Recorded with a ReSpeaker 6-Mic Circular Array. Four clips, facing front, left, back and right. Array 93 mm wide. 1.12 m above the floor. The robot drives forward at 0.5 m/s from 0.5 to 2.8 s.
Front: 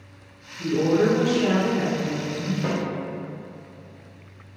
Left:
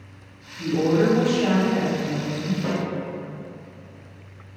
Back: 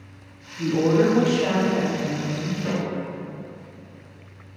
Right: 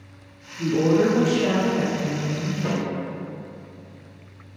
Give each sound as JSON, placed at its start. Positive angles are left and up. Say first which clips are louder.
{"t": 0.6, "sound": "a woman speaking", "louder": "right 1 dB, back 1 dB", "azimuth_deg": -165, "distance_m": 1.5}
{"t": 2.6, "sound": "a snare drum", "louder": "right 1 dB, even", "azimuth_deg": 5, "distance_m": 1.7}